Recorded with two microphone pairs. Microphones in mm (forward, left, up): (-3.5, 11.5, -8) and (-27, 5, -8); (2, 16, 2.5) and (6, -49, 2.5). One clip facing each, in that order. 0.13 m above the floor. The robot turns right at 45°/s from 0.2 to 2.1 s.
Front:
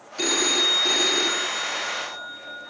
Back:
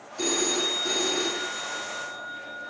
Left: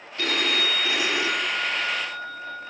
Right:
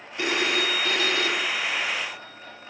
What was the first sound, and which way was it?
A phone ringing, 15° right.